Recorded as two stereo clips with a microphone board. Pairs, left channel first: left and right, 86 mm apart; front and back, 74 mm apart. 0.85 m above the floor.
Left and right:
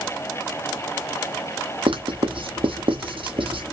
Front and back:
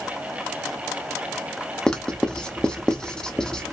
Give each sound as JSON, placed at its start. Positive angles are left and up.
{"t": 1.9, "sound": "writing", "azimuth_deg": -80, "distance_m": 0.7}